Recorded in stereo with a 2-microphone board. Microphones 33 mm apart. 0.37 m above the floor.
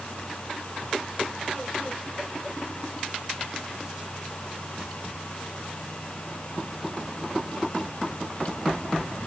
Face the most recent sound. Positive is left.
No sound to turn to.